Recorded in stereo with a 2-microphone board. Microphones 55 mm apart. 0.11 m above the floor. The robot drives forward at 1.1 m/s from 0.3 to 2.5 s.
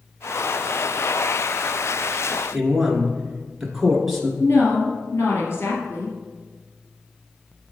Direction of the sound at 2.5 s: 5° right (ahead or behind).